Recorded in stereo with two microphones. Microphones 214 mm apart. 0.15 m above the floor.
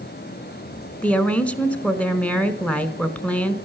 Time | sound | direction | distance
1.0 | a woman speaking | 5° left (ahead or behind) | 1.3 m